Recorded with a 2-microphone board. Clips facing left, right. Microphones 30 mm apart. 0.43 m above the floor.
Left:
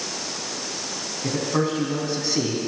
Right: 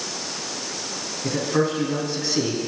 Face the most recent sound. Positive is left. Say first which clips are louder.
# right 1 dB
turn(degrees=5)  # may be behind; listen again after turning